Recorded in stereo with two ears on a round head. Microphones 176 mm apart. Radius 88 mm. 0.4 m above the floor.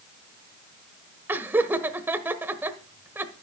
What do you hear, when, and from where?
1.3 s laughter: 10° right (ahead or behind), 1.2 m